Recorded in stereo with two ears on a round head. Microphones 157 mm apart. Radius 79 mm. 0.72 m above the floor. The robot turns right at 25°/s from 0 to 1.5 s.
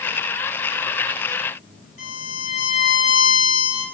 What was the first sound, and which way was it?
A violin, 45° left (ahead or behind).